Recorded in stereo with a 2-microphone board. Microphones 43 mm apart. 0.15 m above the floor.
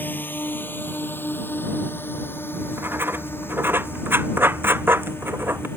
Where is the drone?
50° left (ahead or behind); by 5.8 s 65° left (ahead or behind).